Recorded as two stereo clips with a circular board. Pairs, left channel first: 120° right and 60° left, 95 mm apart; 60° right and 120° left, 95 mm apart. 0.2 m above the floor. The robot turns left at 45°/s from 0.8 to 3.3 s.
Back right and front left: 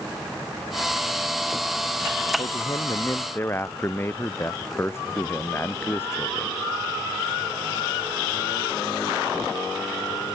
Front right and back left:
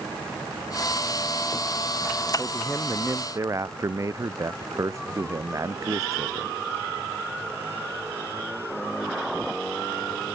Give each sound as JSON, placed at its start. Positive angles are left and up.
{"t": 2.4, "sound": "a man speaking", "azimuth_deg": -145}